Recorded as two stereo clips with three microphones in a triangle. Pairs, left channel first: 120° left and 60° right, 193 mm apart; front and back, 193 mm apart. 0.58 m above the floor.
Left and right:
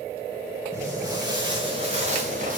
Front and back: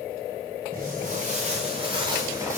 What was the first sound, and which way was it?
Footsteps, 135° right.